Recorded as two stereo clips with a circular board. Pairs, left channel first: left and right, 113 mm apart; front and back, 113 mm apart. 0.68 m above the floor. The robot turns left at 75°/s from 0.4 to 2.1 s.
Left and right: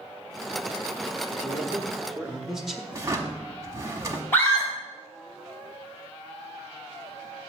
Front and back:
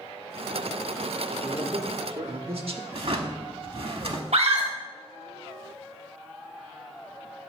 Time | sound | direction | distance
1.3 | a man speaking | 120° right | 0.9 m
2.9 | a drawer | 155° right | 1.0 m
4.3 | a scream | 160° left | 3 m